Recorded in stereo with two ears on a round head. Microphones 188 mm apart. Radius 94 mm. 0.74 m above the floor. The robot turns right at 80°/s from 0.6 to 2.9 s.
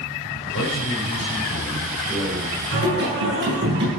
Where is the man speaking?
60° left, 4 m; by 2.6 s 140° right, 4 m.